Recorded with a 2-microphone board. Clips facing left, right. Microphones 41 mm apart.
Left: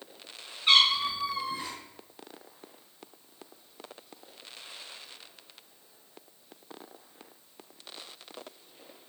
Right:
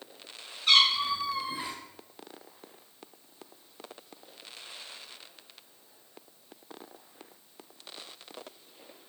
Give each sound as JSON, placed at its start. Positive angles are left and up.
{"t": 0.7, "sound": "a cat meowing", "side_deg": 25, "distance_m": 1.1}